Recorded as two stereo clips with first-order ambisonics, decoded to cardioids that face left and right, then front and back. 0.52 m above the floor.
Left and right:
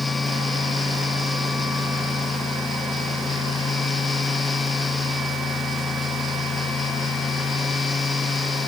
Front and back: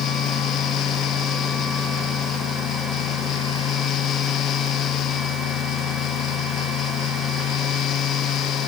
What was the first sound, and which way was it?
Only background noise.